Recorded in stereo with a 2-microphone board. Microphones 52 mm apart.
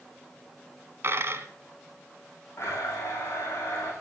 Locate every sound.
1.0 s a dropped coin: 50° right (ahead or behind), 1.0 m
2.6 s a blender: 50° left (ahead or behind), 4.5 m